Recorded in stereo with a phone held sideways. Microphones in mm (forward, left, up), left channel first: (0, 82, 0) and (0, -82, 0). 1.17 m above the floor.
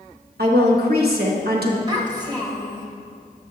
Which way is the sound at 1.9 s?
25° right (ahead or behind).